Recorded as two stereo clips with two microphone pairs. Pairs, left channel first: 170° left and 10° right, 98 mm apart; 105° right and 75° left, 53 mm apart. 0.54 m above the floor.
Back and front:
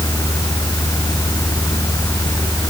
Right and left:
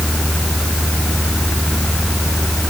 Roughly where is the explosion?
No explosion in this recording.